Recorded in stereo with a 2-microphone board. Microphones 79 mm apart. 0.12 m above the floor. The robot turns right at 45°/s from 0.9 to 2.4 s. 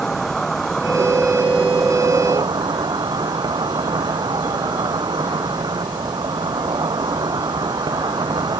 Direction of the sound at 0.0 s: 175° left.